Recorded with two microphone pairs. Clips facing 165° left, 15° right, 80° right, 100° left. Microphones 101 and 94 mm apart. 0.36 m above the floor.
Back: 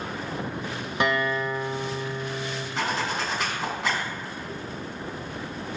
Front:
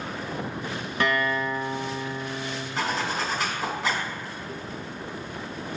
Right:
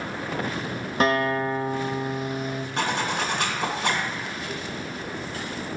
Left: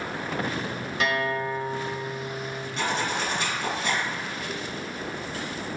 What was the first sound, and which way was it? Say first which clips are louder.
A guitar: even, right 5 dB; 125° right.